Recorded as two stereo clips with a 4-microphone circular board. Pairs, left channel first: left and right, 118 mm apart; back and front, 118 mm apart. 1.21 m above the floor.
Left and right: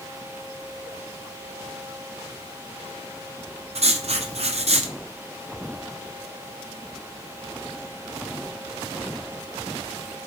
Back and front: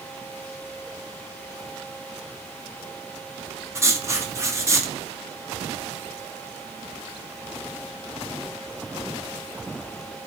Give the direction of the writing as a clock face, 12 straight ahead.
2 o'clock.